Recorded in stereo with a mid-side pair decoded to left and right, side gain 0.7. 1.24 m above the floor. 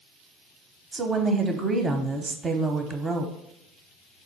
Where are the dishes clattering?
No dishes clattering in this recording.